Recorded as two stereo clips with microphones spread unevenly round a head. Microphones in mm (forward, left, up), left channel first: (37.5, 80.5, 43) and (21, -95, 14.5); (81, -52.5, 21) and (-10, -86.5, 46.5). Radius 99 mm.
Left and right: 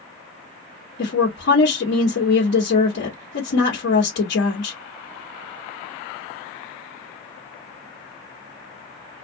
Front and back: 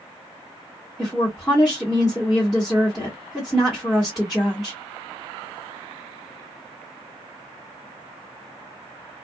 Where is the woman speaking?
110° left, 1.1 m.